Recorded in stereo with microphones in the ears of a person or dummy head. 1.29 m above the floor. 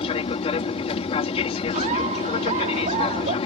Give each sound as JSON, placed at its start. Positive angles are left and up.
{"t": 0.0, "sound": "an aircraft", "side_deg": 30}
{"t": 1.7, "sound": "laughter", "side_deg": -40}